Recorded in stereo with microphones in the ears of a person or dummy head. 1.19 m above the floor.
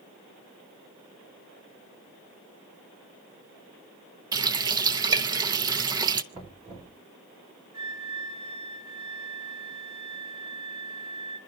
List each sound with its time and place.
4.3 s a running tap: 25° right (ahead or behind), 0.5 m
6.3 s knocking: 35° right (ahead or behind), 2.5 m
7.7 s a flute: 60° right (ahead or behind), 5 m